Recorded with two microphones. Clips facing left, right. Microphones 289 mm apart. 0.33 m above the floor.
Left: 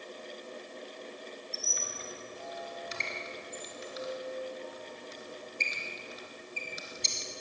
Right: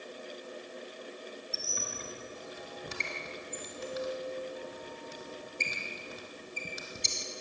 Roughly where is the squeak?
Right.